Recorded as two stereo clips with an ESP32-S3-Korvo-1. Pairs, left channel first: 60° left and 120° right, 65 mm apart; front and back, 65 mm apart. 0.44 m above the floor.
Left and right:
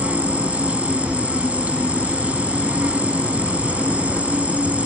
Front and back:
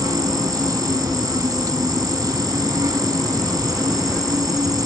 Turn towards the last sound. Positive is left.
turn(degrees=170)